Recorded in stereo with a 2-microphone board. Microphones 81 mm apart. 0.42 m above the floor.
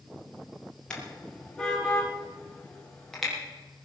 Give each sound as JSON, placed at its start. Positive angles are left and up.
{"t": 0.9, "sound": "a car horn", "side_deg": 10, "distance_m": 4.0}